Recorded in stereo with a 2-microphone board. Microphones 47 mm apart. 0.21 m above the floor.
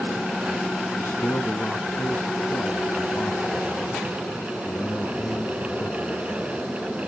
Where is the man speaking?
50° left (ahead or behind), 2.5 m.